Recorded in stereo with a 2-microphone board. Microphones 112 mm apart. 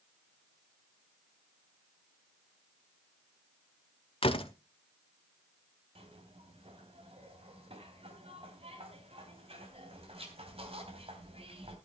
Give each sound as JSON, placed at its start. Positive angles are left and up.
{"t": 4.2, "sound": "a door slam", "side_deg": 55, "distance_m": 1.3}
{"t": 6.0, "sound": "a zipper", "side_deg": -60, "distance_m": 3.0}